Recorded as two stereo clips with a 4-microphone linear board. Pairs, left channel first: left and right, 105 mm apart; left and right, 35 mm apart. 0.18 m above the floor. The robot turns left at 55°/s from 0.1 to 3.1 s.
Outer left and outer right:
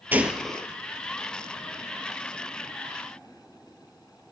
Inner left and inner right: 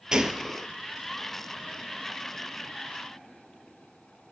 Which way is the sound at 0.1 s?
160° right.